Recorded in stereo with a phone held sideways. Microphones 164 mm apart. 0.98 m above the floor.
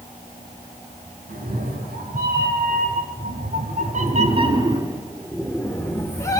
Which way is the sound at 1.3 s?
75° right (ahead or behind).